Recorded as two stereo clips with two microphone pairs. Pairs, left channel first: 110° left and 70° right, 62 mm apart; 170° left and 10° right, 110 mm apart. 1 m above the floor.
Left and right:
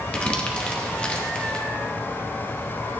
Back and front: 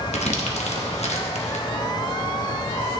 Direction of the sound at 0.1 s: Straight behind.